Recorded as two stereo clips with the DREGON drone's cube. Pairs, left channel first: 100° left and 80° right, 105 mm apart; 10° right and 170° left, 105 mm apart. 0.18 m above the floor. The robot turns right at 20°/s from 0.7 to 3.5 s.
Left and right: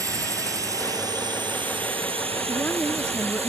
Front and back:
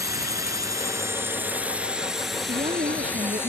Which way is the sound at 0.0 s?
135° right.